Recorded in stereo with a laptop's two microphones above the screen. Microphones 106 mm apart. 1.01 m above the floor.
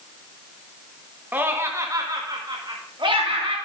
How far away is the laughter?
About 1.1 m.